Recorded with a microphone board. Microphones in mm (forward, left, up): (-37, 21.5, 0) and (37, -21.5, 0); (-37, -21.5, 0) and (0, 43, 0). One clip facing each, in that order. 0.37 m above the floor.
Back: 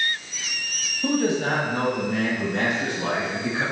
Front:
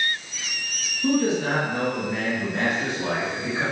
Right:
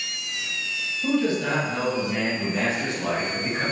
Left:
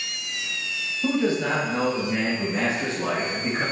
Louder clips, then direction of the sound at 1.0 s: Front 1 dB, even; 125° left.